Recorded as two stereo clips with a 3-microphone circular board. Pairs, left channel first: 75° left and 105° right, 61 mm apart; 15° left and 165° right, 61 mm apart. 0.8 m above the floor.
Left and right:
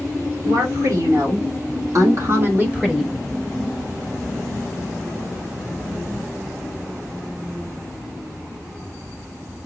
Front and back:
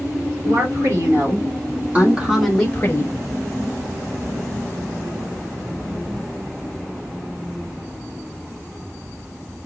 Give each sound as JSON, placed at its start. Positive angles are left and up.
{"t": 0.4, "sound": "a woman speaking", "azimuth_deg": -135, "distance_m": 3.5}